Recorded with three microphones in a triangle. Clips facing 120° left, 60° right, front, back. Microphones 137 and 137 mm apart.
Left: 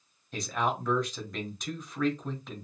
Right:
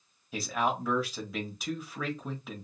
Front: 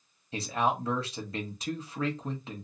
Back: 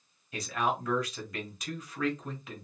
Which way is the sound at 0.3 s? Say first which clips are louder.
Even, front 2 dB; 20° left.